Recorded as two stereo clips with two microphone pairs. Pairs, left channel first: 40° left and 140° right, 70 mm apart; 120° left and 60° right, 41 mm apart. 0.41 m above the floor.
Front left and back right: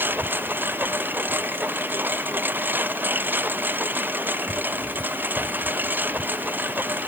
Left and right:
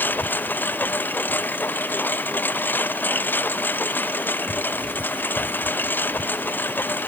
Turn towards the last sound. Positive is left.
turn(degrees=160)